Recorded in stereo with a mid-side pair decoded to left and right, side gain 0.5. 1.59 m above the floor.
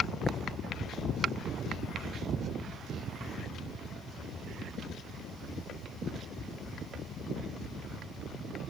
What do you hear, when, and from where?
0.2 s tapping: 25° left